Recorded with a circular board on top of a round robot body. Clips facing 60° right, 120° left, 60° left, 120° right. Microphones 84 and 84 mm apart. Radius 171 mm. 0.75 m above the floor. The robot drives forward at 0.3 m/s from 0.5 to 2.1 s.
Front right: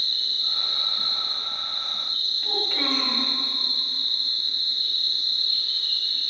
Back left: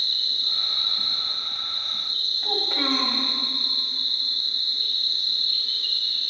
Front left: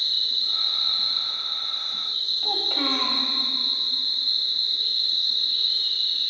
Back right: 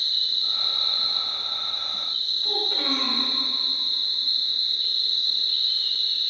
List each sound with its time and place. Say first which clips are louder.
0.0 s an insect: back left 1 dB, even; 5° right, 3 m
2.4 s a child speaking: back left 2 dB, front left 2 dB; 50° left, 1.8 m